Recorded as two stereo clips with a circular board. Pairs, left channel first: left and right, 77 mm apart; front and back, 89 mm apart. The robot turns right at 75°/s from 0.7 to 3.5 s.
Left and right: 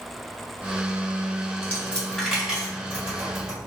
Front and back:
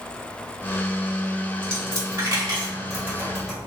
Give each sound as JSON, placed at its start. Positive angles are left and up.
{"t": 1.6, "sound": "a dropped coin", "azimuth_deg": 130, "distance_m": 1.9}